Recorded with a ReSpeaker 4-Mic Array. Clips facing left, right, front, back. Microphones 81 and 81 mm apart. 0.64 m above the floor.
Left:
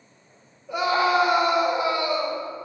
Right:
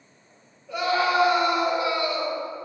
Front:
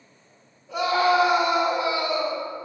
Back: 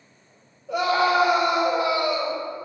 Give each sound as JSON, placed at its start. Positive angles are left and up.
{"t": 0.7, "sound": "a scream", "azimuth_deg": 165, "distance_m": 3.0}